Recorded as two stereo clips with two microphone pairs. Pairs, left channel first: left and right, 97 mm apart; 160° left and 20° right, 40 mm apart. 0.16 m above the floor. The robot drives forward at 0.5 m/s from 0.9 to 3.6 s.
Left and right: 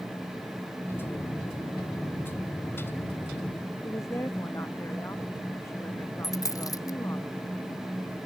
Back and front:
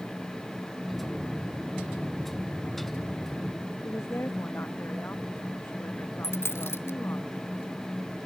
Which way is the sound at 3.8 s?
150° left.